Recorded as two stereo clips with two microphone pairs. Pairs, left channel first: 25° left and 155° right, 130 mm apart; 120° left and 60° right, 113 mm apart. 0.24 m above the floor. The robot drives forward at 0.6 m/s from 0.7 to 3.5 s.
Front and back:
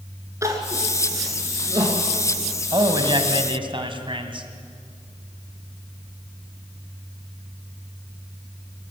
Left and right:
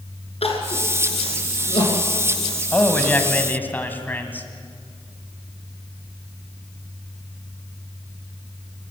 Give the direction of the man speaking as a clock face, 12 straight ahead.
6 o'clock.